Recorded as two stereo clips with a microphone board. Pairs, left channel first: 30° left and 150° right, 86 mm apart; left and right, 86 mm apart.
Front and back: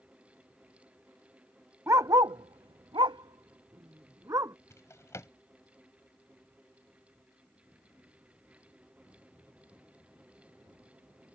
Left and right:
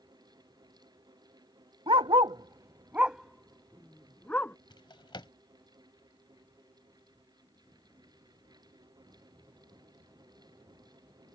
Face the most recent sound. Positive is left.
turn(degrees=80)